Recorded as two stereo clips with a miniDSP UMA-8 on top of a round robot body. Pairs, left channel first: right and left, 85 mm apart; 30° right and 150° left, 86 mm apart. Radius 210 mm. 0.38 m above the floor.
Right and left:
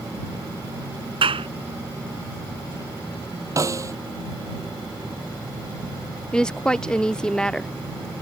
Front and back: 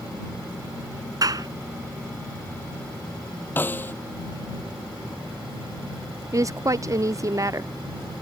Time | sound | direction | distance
1.2 | a clap | 105° left | ?
3.6 | a snare drum | 35° left | ?
6.3 | a woman speaking | 170° right | ?